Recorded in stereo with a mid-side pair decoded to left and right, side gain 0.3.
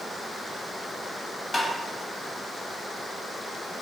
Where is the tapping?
25° left, 1.4 m.